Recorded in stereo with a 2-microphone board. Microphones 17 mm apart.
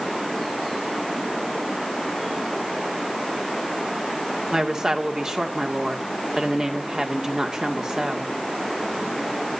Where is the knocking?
No knocking in this recording.